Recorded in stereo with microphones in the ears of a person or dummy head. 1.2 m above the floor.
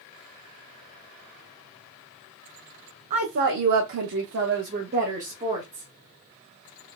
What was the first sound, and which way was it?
A woman speaking, 50° right (ahead or behind).